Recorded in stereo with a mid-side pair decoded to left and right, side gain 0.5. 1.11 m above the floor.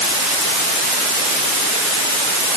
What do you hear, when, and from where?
Only background noise.